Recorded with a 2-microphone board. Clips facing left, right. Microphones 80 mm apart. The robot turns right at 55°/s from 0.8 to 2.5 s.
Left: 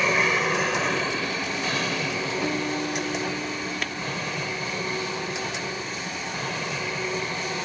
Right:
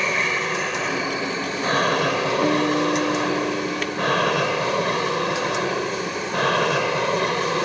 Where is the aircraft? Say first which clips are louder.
Left 1 dB; centre (ahead or behind); by 7.7 s 70° right (ahead or behind).